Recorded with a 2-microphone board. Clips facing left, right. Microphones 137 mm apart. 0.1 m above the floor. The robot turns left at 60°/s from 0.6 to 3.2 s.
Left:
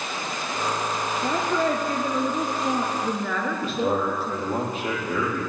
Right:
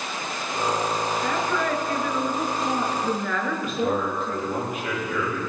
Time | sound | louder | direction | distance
1.2 | a woman speaking | left 5 dB | 130° left | 1.6 m
3.5 | a man speaking | left 1 dB | 35° left (ahead or behind) | 4.5 m